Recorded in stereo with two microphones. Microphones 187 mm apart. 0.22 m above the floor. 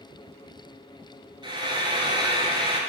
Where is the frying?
25° right (ahead or behind), 1.1 m.